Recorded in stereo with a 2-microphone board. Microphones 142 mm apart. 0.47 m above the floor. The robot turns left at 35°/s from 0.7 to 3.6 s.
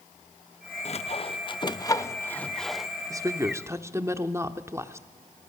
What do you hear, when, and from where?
0.8 s sawing: 50° left (ahead or behind), 0.6 m; by 2.9 s 5° right (ahead or behind), 0.6 m
3.1 s a woman speaking: 25° right (ahead or behind), 0.8 m; by 5.1 s 20° right (ahead or behind), 0.8 m